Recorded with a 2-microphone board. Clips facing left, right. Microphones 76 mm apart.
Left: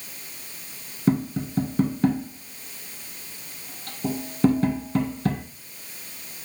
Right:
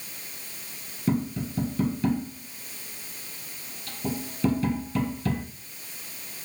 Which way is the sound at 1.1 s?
45° left (ahead or behind).